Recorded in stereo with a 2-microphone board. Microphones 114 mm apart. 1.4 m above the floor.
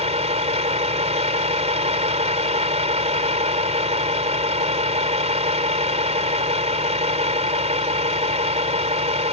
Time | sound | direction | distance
0.0 | a vehicle | 80° right | ?